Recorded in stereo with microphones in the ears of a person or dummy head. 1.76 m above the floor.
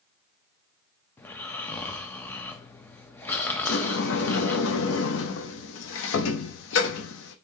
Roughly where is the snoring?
Centre.